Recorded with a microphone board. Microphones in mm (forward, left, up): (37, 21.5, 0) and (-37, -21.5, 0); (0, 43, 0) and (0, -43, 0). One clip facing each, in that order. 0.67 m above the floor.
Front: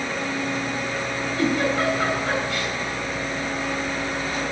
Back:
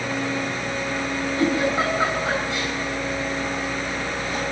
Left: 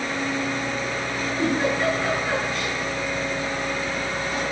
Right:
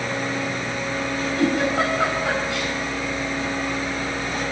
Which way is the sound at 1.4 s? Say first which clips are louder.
Even, right 2 dB; 80° right.